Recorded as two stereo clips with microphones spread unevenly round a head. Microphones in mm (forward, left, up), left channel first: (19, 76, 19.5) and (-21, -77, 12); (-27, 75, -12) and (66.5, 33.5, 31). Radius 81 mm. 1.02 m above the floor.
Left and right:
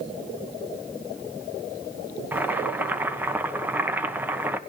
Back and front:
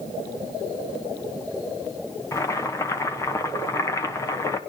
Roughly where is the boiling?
Behind.